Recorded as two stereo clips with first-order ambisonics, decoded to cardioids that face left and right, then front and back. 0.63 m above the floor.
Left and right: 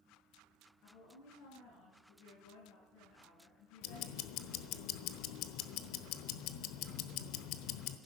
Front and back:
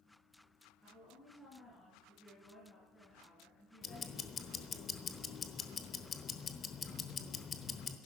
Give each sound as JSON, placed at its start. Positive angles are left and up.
{"t": 0.8, "sound": "a woman speaking", "azimuth_deg": 90, "distance_m": 8.0}
{"t": 3.8, "sound": "ticking", "azimuth_deg": 65, "distance_m": 1.0}